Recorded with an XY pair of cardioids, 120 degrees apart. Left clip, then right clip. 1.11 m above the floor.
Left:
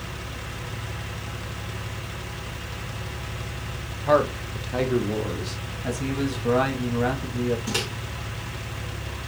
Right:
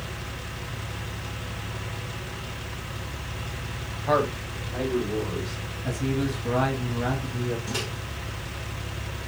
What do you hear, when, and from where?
4.1 s a man speaking: 5° left, 0.7 m; by 5.6 s 75° left, 1.4 m
5.8 s a man speaking: 25° left, 1.0 m
7.7 s a microwave: 40° left, 1.0 m